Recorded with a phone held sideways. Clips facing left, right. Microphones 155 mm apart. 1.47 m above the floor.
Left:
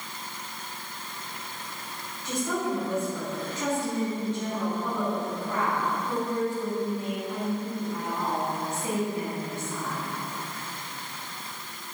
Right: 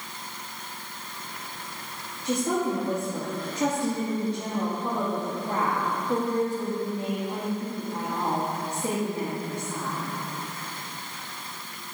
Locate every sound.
2.2 s a woman speaking: 35° right (ahead or behind), 2 m